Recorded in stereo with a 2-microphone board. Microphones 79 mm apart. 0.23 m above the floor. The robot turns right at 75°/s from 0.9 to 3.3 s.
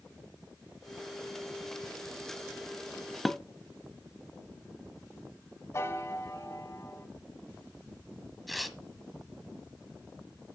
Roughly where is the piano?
Left.